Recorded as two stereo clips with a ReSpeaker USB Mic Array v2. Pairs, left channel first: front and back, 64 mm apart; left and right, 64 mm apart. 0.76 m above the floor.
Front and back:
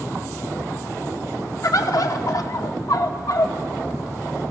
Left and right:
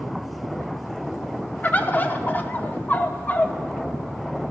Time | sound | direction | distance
1.6 | a bird | 30° left | 0.7 m